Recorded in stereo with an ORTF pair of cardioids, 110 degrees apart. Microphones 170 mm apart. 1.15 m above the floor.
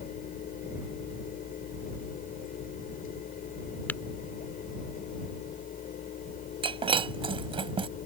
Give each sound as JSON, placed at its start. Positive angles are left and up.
{"t": 0.0, "sound": "a fan", "azimuth_deg": 55}
{"t": 3.9, "sound": "tapping", "azimuth_deg": 10}
{"t": 6.6, "sound": "breaking glass", "azimuth_deg": -30}